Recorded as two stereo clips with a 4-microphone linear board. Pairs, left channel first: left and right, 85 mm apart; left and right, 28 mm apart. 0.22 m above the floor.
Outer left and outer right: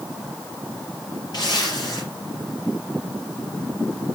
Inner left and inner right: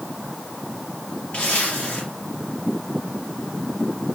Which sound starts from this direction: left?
A zipper, at 1.3 s.